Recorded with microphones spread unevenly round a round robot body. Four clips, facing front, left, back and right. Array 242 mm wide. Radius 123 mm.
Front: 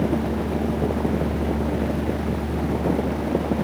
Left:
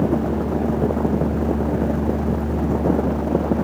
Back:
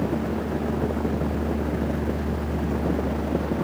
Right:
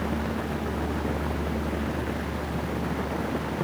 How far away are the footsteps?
No footsteps in this recording.